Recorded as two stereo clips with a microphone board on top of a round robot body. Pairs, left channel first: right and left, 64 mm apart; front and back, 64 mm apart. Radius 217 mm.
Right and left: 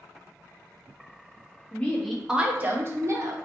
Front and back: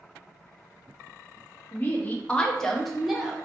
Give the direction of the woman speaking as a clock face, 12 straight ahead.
1 o'clock.